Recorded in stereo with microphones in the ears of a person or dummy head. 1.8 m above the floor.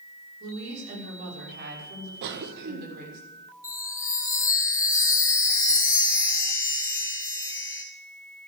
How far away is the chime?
About 1.6 m.